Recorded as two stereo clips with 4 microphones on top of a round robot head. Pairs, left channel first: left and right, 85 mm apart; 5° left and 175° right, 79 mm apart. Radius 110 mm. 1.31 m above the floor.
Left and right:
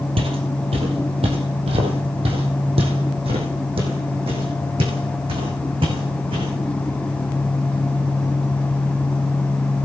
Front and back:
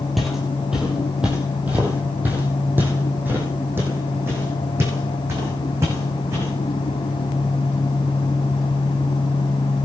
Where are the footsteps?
85° right, 2.5 m; by 6.5 s 115° right, 6 m.